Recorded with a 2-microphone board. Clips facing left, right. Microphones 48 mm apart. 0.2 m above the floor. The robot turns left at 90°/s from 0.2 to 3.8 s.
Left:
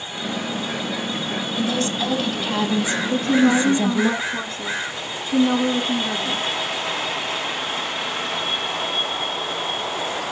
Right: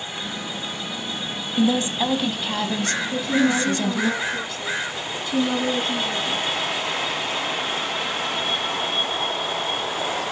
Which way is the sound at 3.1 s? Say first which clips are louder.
Left 4 dB; 110° left.